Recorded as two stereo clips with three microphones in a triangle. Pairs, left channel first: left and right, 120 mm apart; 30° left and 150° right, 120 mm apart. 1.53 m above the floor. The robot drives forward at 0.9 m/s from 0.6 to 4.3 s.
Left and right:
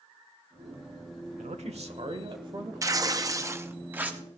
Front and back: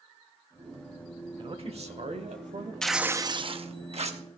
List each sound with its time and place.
1.4 s a man speaking: 105° right, 1.1 m; by 2.7 s 140° right, 1.8 m
2.8 s tearing paper: 50° right, 0.5 m; by 4.2 s 165° right, 1.1 m